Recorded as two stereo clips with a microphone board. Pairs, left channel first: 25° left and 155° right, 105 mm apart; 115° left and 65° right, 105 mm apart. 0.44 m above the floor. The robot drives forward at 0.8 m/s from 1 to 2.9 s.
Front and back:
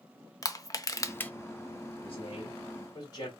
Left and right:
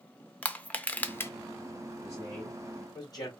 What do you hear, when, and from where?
0.4 s crushing: 45° left, 0.6 m; by 1.3 s 85° left, 0.6 m
2.0 s a man speaking: 50° left, 2.5 m; by 3.3 s 65° left, 2.0 m